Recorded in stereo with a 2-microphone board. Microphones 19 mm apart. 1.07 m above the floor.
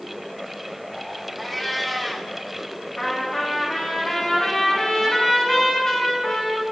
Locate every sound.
1.4 s a cat meowing: 5° left (ahead or behind), 1.3 m
3.0 s a trumpet: 35° left (ahead or behind), 3 m